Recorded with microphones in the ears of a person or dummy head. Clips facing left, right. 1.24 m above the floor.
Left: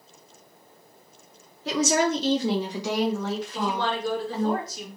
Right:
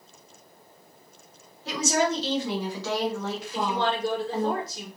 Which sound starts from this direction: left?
A woman speaking, at 1.6 s.